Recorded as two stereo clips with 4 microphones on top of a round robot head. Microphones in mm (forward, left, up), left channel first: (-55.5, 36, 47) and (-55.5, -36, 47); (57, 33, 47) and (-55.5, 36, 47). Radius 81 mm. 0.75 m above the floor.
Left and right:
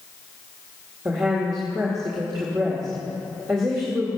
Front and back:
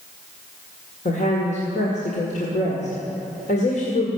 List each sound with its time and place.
1.1 s a woman speaking: 25° right, 2.0 m